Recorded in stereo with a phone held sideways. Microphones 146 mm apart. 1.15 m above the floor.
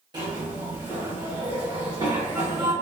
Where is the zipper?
30° right (ahead or behind), 1.1 m.